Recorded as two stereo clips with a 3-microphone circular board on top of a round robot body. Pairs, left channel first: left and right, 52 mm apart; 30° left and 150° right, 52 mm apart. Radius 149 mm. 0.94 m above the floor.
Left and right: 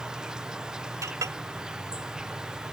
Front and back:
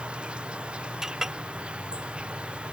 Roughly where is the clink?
Right.